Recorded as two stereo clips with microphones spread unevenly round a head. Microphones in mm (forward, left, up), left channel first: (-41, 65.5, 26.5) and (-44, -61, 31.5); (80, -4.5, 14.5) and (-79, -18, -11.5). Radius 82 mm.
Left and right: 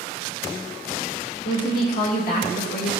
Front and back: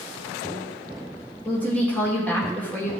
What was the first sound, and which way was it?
A woman speaking, 90° left.